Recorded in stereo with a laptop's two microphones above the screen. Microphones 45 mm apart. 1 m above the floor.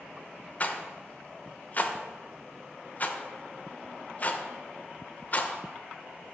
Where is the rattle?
35° left (ahead or behind), 0.6 m.